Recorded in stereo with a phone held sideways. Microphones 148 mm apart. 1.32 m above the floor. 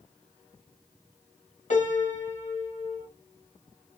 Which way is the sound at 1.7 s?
55° left (ahead or behind).